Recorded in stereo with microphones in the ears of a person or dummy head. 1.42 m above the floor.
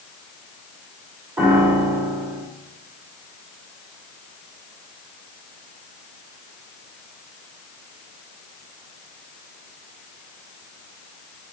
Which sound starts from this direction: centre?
A piano, at 1.4 s.